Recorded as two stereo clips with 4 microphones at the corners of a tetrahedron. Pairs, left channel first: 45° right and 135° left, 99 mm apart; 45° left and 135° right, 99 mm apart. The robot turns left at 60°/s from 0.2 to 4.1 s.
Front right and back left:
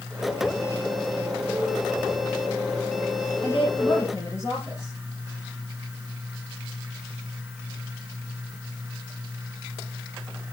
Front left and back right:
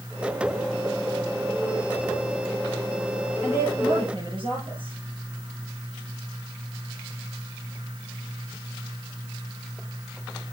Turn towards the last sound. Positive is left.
turn(degrees=-105)